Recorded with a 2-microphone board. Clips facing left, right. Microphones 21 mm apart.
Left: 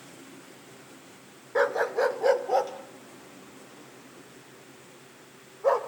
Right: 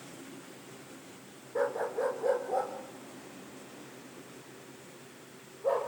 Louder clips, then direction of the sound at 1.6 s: Left 7 dB; 75° left (ahead or behind).